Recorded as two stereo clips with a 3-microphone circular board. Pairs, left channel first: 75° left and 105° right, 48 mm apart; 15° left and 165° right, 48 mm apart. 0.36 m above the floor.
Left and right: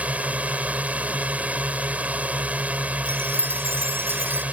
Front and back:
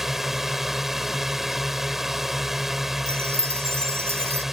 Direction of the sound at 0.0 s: 90° right.